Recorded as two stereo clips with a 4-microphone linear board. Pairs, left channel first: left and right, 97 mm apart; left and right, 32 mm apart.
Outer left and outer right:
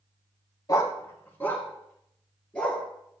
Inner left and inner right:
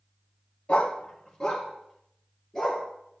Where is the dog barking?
40° left (ahead or behind), 0.9 m; by 2.8 s 10° left (ahead or behind), 3 m.